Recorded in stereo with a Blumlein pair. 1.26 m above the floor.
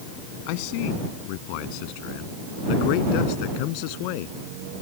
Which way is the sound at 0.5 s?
45° left.